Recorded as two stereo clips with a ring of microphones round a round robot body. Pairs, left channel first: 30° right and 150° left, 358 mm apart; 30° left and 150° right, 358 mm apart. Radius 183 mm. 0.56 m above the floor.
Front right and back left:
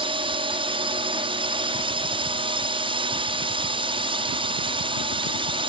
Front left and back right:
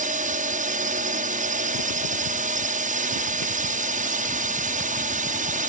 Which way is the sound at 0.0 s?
160° right.